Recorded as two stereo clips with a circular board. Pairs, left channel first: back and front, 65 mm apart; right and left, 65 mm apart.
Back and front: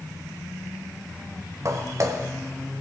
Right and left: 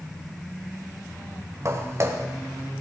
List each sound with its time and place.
1.6 s footsteps: 40° left, 1.9 m